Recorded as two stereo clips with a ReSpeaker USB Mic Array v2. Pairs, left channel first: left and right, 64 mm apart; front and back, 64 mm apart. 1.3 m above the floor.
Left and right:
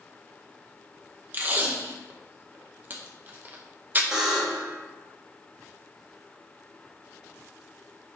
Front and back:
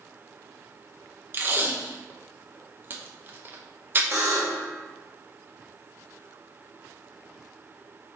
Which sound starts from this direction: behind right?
Tape being pulled, at 1.3 s.